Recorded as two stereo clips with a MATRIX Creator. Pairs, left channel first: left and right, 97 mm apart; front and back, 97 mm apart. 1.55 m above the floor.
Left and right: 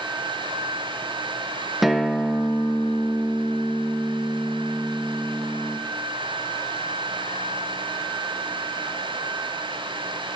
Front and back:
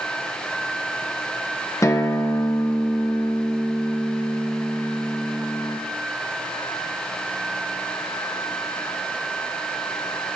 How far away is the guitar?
About 0.7 m.